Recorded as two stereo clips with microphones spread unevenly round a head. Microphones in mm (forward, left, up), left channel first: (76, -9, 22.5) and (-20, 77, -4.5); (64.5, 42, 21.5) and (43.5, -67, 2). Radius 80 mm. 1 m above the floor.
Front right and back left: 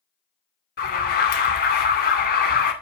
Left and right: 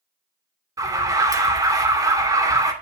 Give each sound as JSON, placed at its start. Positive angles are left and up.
{"t": 0.8, "sound": "an alarm", "azimuth_deg": -45, "distance_m": 2.5}